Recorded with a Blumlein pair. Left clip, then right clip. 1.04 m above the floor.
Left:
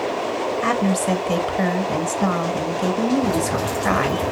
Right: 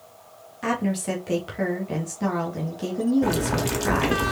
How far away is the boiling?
About 1.6 m.